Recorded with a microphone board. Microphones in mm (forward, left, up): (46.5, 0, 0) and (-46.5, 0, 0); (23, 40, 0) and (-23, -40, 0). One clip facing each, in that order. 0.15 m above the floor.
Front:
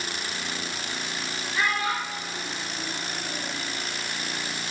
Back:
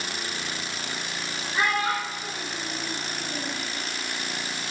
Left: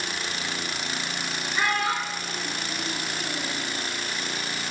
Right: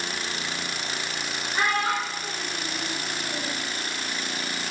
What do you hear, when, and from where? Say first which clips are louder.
1.5 s a child speaking: back 2 dB, right 1 dB; 125° right, 1.3 m; by 3.6 s 155° left, 1.8 m